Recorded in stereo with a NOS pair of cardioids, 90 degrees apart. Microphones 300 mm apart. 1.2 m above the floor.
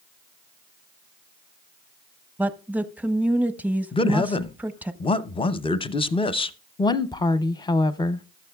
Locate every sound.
2.4 s a woman speaking: 5° right, 0.7 m
3.9 s a man speaking: 20° left, 0.6 m
6.8 s a woman speaking: 15° left, 0.6 m